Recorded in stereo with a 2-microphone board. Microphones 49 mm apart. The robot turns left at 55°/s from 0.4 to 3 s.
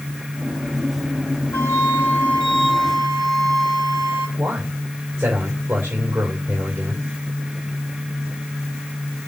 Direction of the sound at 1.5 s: 75° left.